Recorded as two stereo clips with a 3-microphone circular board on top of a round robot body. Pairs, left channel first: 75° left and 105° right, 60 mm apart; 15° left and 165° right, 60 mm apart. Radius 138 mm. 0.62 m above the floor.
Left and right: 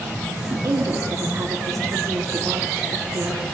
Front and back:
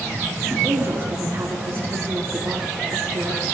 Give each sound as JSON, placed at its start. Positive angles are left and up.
{"t": 0.5, "sound": "a woman speaking", "azimuth_deg": -120, "distance_m": 1.9}